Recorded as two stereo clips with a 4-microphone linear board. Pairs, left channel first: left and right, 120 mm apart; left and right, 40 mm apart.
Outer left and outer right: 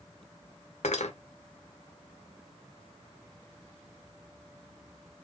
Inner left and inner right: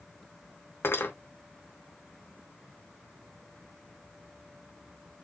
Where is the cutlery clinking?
75° left (ahead or behind), 1.0 m.